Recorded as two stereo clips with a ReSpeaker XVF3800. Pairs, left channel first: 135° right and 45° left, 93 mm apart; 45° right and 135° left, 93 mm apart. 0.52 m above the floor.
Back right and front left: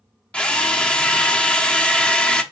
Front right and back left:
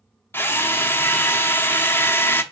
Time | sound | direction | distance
0.3 | a drill | 75° right | 0.5 m